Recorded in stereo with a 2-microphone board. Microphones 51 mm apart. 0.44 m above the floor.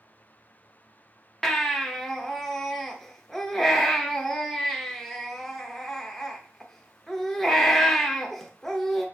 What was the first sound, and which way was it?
A baby crying, 5° left (ahead or behind).